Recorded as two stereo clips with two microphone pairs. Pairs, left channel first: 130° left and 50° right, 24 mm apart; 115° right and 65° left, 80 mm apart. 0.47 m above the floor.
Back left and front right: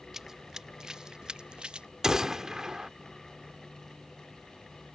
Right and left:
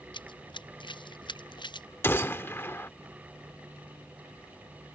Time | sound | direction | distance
0.1 | running footsteps | 120° right | ?
2.0 | a gunshot | 85° right | ?